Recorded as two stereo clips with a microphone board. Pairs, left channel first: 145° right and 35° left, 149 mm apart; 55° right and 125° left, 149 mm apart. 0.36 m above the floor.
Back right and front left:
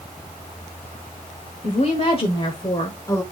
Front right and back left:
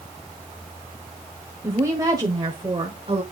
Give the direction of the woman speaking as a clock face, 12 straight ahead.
6 o'clock.